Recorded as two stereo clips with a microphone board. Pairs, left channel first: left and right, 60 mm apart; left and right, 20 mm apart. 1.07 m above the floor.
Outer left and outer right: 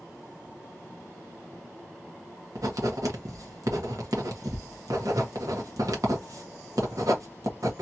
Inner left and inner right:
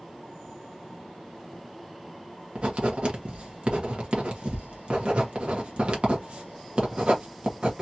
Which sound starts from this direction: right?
Writing, at 2.5 s.